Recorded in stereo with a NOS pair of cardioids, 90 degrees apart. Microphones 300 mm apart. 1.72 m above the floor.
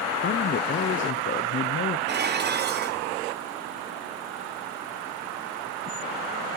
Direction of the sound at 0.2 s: 40° left.